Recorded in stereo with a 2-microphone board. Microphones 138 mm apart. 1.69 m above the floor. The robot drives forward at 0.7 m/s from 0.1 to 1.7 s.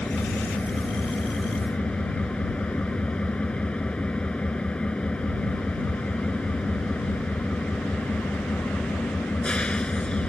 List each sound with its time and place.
0.0 s an engine running: 5° left (ahead or behind)